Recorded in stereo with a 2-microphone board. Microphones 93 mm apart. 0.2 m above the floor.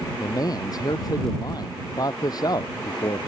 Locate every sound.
0.2 s a man speaking: 45° left (ahead or behind)